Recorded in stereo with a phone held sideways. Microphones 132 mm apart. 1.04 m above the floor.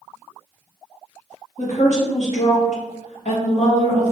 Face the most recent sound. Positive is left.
turn(degrees=60)  # may be behind; listen again after turning